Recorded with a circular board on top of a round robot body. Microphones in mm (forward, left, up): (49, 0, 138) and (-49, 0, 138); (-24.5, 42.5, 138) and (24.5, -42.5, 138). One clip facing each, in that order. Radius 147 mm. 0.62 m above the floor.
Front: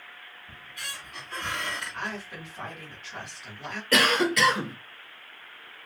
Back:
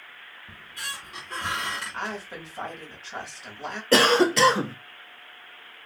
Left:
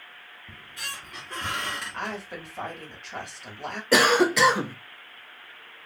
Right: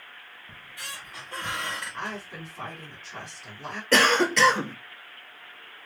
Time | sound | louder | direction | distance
0.5 | a squeak | back 3 dB, left 2 dB | 130° left | 1.3 m
1.9 | a woman speaking | back 2 dB, left 2 dB | 130° left | 1.8 m
3.9 | a cough | back 5 dB, left 2 dB | 170° right | 0.6 m